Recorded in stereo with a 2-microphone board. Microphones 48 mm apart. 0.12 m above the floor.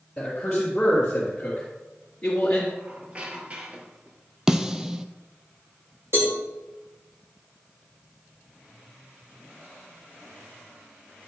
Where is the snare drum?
10° right (ahead or behind), 0.8 m.